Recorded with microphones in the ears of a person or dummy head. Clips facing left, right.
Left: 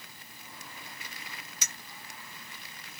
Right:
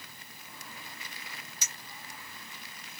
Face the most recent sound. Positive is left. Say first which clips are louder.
# left 1 dB
turn(degrees=60)  # may be behind; listen again after turning